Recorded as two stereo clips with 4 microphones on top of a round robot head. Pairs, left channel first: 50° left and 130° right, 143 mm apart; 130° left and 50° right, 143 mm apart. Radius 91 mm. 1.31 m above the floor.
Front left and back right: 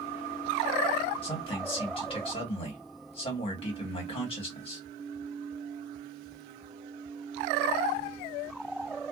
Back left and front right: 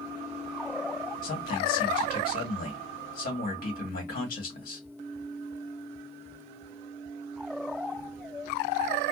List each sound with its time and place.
1.2 s a man speaking: 105° left, 1.4 m